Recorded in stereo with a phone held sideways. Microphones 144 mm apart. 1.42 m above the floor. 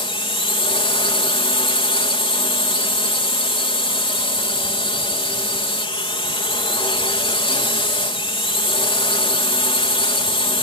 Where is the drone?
40° left (ahead or behind).